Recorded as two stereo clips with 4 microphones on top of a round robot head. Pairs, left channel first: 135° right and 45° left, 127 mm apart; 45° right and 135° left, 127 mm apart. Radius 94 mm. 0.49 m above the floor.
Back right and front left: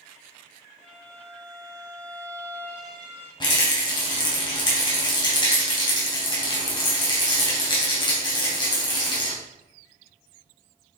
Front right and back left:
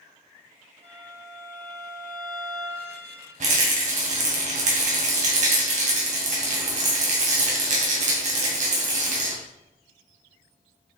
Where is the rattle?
165° left, 3 m.